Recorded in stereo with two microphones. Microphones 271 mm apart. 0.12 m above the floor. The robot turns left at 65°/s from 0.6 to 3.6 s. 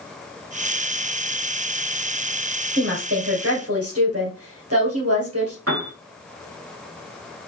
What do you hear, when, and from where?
2.8 s a woman speaking: 45° right, 2.5 m; by 5.6 s 100° right, 2.5 m
5.7 s a piano: 55° right (ahead or behind), 1.3 m